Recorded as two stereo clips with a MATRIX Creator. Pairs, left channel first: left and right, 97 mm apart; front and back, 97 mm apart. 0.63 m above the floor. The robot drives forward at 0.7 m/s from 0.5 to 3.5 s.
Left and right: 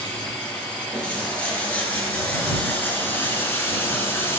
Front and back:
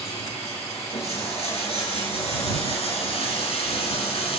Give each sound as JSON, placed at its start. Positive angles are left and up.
{"t": 0.0, "sound": "running water", "azimuth_deg": 15, "distance_m": 5.5}